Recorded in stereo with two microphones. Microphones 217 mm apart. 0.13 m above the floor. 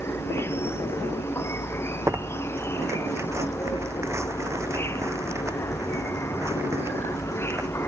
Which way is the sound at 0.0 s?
10° left (ahead or behind).